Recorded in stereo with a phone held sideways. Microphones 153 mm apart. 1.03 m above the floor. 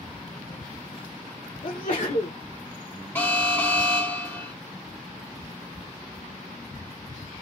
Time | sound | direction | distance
1.6 | a sneeze | 65° left (ahead or behind) | 0.7 m
3.1 | an alarm | 15° left (ahead or behind) | 1.0 m